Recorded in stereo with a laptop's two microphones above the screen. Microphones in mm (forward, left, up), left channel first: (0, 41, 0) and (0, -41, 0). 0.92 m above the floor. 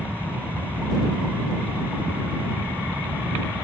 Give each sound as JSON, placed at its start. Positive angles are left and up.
{"t": 0.0, "sound": "a fan", "side_deg": -20}